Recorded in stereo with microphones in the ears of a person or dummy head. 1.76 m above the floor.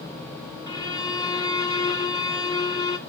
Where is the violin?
25° left (ahead or behind), 1.2 m.